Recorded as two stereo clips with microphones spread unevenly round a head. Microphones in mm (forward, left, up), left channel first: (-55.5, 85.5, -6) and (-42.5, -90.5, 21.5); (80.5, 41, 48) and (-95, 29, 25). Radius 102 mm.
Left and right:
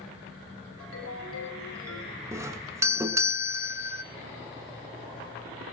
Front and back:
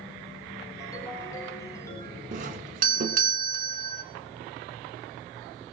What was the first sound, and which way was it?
A ringtone, 75° left.